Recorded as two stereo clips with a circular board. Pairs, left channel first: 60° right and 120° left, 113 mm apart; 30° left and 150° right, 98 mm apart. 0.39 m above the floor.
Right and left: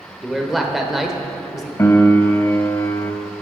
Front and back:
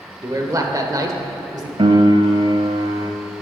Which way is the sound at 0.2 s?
150° right.